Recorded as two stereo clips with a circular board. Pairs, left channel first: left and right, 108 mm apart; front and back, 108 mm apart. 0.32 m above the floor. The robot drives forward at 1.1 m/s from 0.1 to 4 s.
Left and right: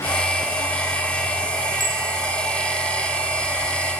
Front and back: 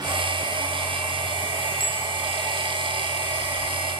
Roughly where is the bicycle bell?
Behind right.